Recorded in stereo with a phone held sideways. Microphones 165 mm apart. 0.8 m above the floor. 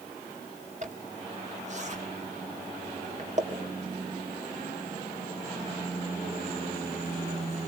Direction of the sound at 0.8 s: 45° right (ahead or behind).